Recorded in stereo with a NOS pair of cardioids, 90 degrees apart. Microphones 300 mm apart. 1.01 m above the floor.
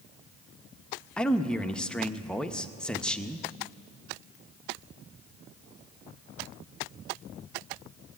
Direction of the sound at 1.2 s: 5° left.